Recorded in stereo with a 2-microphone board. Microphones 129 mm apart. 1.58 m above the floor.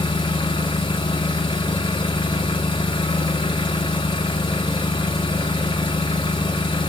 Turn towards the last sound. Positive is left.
turn(degrees=35)  # may be behind; listen again after turning